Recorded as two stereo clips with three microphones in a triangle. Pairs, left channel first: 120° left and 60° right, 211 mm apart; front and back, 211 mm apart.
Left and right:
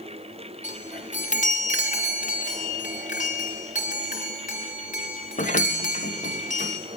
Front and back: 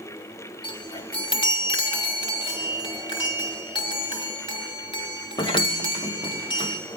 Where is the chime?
65° left, 1.9 m.